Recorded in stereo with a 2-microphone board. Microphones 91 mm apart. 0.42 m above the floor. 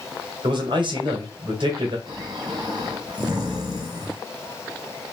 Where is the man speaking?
60° right (ahead or behind), 2.0 m.